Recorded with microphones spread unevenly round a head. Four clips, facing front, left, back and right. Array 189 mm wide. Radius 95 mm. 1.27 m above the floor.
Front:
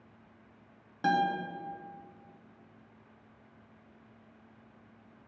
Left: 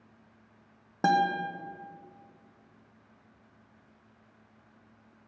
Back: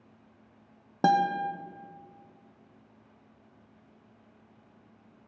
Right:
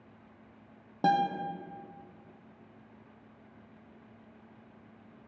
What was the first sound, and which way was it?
A guitar, straight behind.